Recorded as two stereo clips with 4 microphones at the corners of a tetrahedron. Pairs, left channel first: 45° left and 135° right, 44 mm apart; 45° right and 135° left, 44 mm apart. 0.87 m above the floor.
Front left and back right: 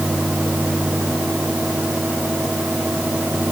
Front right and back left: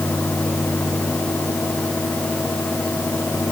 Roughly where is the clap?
No clap in this recording.